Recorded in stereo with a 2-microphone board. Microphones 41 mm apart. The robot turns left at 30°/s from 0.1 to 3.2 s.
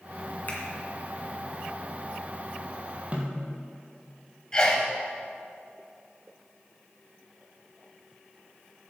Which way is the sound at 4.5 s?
20° left (ahead or behind).